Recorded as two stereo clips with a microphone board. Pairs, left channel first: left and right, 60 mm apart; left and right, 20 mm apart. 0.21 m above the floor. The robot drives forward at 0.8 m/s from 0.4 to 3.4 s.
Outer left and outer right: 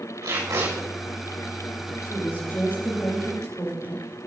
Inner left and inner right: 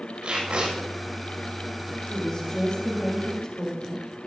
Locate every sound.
0.2 s tape being pulled: 75° right (ahead or behind), 8 m; by 0.7 s 80° right, 8 m
2.1 s a woman speaking: 45° left (ahead or behind), 6.5 m; by 4.0 s 40° left (ahead or behind), 7.5 m